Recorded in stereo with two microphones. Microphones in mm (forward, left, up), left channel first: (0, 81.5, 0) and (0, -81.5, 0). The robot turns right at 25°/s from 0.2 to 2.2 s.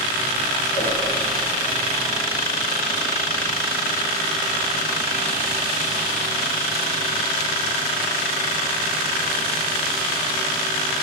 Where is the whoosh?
40° left (ahead or behind), 6 m; by 0.9 s 45° left (ahead or behind), 6 m.